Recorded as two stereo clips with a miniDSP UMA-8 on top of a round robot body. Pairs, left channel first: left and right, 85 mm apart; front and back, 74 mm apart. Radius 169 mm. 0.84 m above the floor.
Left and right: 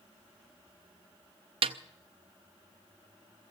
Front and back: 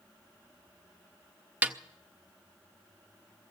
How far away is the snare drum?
About 0.5 m.